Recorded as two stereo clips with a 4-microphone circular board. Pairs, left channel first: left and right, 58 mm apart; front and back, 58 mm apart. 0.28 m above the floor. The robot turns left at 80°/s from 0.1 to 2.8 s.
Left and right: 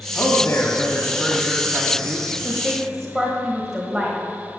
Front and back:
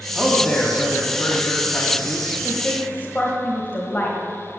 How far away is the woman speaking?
About 1.3 m.